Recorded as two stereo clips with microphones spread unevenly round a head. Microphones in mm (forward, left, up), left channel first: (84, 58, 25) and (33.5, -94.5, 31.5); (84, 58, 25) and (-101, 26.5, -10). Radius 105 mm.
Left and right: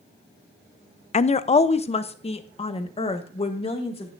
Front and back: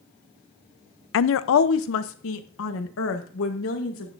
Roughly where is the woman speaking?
Ahead left.